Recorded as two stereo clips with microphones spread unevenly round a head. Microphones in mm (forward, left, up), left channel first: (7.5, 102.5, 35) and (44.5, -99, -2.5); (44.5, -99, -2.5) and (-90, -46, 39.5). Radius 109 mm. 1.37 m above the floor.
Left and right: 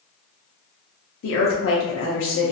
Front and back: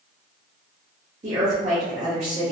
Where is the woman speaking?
105° left, 0.6 m.